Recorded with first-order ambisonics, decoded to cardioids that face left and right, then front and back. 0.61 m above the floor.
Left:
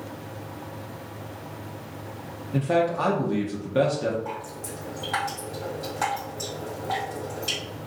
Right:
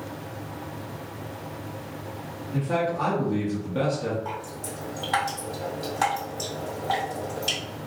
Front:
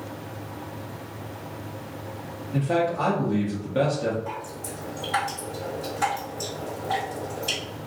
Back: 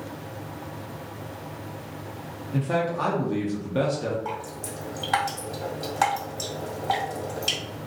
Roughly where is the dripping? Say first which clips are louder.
Right 1 dB, back 1 dB; behind.